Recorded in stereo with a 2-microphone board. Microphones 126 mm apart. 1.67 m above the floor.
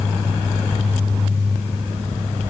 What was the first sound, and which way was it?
Only background noise.